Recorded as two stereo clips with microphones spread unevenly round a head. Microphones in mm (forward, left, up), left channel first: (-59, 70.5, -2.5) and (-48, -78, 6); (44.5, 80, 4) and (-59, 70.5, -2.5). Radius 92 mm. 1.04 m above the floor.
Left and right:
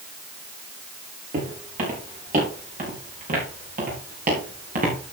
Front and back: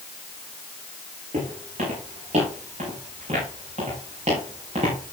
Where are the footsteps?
120° right, 7.5 m; by 5.1 s 110° right, 5.5 m.